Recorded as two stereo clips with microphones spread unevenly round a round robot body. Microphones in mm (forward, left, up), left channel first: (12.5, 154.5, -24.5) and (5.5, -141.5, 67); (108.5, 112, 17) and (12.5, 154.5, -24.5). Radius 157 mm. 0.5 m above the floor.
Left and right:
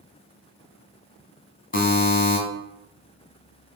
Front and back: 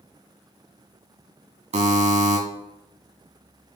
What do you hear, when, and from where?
1.7 s a buzzer: 150° left, 2.5 m